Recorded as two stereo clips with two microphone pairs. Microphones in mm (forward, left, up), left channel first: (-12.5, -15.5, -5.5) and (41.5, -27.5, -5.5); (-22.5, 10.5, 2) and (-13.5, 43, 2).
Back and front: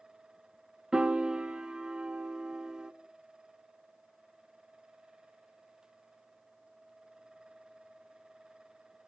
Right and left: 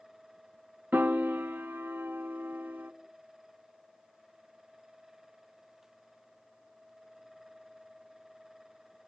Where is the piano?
65° left, 0.6 m.